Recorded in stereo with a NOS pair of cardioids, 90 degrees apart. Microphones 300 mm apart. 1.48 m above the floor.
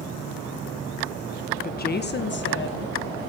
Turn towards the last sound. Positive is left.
turn(degrees=40)